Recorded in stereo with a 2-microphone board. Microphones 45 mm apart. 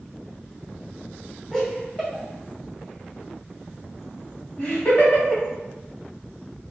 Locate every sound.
1.5 s laughter: 5° left (ahead or behind), 1.4 m; by 5.4 s 45° left (ahead or behind), 2.5 m